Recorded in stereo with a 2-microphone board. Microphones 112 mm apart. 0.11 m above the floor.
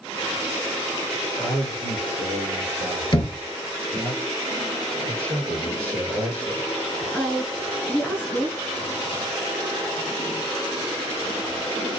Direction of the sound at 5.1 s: 55° right (ahead or behind).